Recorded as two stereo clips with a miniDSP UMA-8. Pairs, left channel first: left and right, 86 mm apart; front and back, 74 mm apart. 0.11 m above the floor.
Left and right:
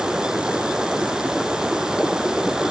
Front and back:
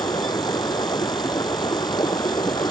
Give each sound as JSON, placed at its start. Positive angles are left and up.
{"t": 0.0, "sound": "running water", "azimuth_deg": -5}